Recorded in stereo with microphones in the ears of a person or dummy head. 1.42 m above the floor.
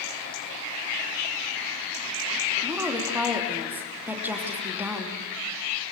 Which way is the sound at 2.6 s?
10° right (ahead or behind).